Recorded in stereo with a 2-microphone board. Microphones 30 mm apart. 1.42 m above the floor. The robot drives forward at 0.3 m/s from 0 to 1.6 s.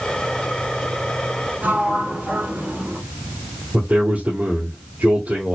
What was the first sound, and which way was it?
A sliding door, 80° right.